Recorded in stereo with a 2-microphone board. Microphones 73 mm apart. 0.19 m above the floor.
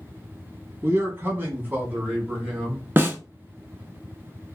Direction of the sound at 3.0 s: 30° right (ahead or behind).